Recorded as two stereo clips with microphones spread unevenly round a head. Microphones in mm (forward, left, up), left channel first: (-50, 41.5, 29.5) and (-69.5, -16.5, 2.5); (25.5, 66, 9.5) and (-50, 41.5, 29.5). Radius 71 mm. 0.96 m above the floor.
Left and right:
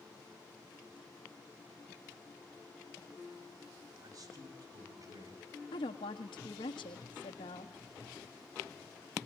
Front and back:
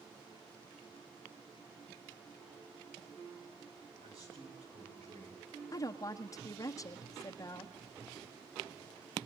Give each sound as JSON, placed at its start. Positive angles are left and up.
{"t": 4.0, "sound": "a man speaking", "azimuth_deg": -120, "distance_m": 8.0}
{"t": 5.7, "sound": "a woman speaking", "azimuth_deg": 55, "distance_m": 1.5}